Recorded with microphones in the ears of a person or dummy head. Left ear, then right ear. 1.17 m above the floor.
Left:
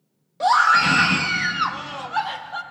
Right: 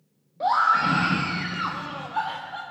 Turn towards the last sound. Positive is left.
turn(degrees=40)  # may be behind; listen again after turning